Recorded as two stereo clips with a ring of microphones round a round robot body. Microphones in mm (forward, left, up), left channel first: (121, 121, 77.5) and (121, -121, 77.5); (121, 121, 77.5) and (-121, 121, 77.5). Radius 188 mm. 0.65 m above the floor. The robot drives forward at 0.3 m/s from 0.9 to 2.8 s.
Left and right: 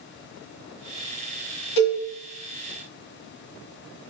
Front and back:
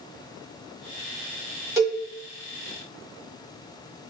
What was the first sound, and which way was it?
A cowbell, 105° left.